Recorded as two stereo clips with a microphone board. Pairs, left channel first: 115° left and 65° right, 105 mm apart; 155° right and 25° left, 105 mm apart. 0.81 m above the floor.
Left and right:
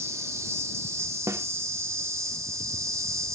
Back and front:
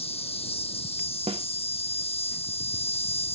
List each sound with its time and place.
0.0 s an insect: 130° right
1.3 s a snare drum: 5° right